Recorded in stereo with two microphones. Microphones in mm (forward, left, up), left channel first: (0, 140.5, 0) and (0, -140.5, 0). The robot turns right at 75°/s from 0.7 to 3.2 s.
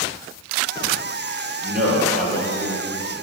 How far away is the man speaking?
About 6 m.